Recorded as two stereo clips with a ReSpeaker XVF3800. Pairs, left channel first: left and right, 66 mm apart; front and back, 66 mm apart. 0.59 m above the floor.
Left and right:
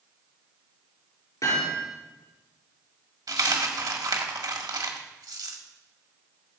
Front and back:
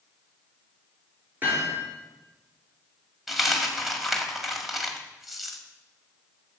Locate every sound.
1.4 s hammering: 120° left, 7 m
3.3 s a dropped coin: 90° right, 1.6 m